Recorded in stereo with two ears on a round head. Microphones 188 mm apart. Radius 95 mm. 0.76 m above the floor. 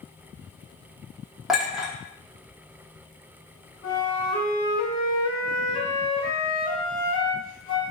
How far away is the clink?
About 0.6 m.